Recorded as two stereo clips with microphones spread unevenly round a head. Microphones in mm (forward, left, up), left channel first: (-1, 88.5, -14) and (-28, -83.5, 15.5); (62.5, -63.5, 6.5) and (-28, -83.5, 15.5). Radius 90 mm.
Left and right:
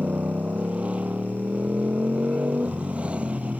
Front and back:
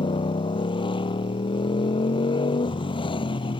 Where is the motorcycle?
15° right.